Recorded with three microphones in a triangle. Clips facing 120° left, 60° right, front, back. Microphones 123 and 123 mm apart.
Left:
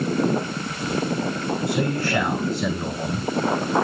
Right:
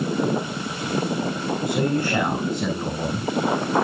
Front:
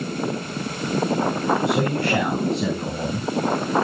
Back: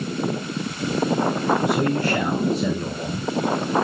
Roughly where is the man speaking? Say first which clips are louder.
Right 3 dB, even; ahead.